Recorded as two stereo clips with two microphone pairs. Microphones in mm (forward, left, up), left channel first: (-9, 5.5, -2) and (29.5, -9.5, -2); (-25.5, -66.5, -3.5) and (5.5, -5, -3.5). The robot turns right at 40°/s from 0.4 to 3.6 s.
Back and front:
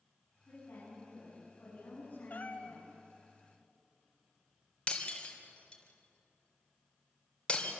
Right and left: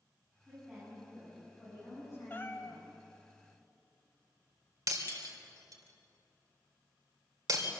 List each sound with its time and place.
0.5 s a woman speaking: 135° left, 9.5 m; by 2.9 s 125° right, 9.5 m
2.3 s a cat meowing: 170° right, 1.6 m; by 2.8 s 150° right, 1.6 m
4.9 s breaking glass: 95° left, 3 m